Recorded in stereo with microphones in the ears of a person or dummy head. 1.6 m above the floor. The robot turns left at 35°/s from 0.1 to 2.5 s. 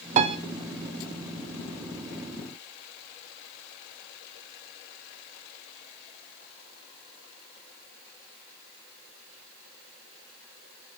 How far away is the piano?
About 1.2 m.